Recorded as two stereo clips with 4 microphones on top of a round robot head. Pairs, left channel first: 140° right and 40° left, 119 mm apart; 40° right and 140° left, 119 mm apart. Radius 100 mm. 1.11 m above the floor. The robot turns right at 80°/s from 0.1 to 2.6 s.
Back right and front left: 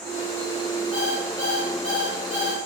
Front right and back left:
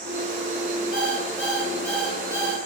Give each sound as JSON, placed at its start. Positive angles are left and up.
{"t": 0.9, "sound": "an alarm clock", "azimuth_deg": -40, "distance_m": 3.5}